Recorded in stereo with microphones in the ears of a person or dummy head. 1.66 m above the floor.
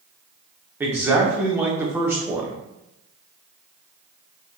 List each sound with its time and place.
0.8 s a man speaking: 15° right (ahead or behind), 0.8 m